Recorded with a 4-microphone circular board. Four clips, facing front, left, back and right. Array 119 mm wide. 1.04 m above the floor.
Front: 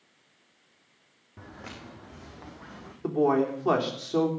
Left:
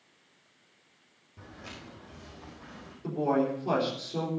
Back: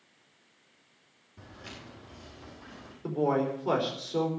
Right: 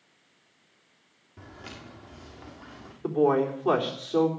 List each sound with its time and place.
1.4 s footsteps: 15° right, 5 m
3.0 s a man speaking: 25° right, 3.5 m